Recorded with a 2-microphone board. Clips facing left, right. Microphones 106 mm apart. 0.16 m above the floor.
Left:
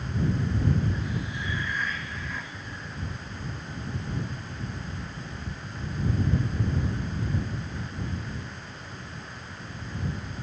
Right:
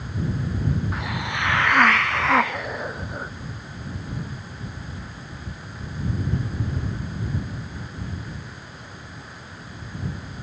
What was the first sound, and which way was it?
A hiss, 75° right (ahead or behind).